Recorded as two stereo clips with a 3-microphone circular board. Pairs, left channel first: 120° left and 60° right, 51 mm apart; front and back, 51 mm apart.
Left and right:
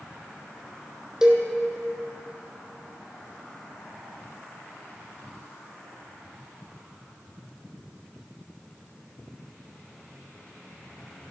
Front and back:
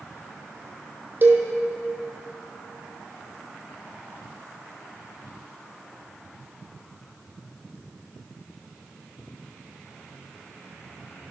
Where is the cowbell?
135° right, 1.3 m.